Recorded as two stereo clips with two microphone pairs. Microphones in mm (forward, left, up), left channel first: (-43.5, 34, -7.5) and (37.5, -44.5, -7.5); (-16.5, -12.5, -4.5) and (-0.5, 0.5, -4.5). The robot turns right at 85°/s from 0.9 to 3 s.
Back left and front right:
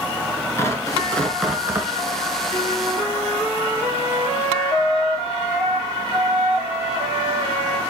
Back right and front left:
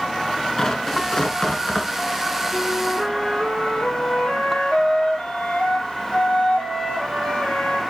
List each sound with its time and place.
0.6 s tearing paper: 175° right, 1.4 m; by 1.9 s 90° right, 1.4 m
2.5 s a flute: 170° right, 4 m; by 7.8 s 130° right, 4 m